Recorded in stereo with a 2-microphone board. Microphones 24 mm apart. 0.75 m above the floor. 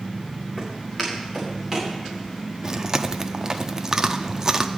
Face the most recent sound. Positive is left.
turn(degrees=-25)  # may be behind; listen again after turning